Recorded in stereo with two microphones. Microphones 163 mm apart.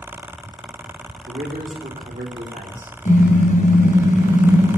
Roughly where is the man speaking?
Right.